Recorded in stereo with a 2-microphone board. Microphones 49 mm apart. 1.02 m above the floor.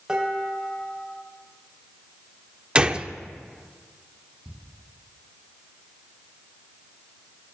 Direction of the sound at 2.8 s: 25° right (ahead or behind).